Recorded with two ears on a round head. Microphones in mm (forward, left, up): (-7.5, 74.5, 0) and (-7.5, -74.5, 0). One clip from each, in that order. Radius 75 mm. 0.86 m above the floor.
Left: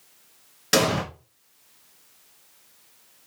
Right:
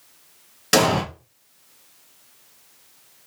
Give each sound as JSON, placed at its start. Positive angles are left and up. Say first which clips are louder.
{"t": 0.7, "sound": "an explosion", "louder": "right 3 dB", "side_deg": -5, "distance_m": 1.8}